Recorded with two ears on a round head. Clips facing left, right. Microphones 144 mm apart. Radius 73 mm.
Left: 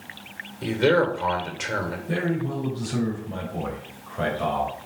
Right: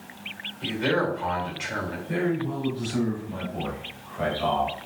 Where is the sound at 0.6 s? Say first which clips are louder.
Left 5 dB; 60° left (ahead or behind), 2 m.